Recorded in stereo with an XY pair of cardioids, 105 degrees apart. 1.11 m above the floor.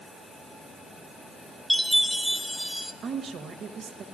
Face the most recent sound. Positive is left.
turn(degrees=-60)